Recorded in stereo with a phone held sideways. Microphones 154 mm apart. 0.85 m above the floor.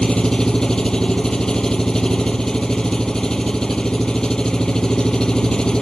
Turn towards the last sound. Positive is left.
turn(degrees=5)  # may be behind; listen again after turning